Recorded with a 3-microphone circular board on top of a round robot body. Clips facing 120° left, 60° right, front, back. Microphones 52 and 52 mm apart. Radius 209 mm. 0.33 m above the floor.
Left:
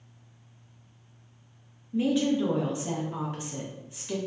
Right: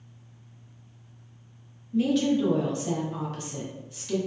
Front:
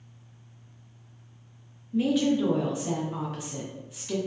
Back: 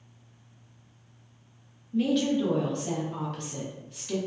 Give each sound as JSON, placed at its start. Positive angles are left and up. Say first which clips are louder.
{"t": 1.9, "sound": "a woman speaking", "louder": "right 2 dB, front 1 dB", "azimuth_deg": 75, "distance_m": 0.9}